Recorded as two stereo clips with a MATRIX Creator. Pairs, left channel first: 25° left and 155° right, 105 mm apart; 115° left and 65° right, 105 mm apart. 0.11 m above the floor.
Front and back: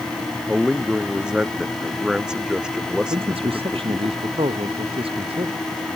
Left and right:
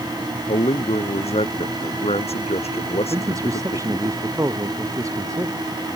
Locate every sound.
0.5 s a man speaking: 120° left
3.1 s a man speaking: 130° right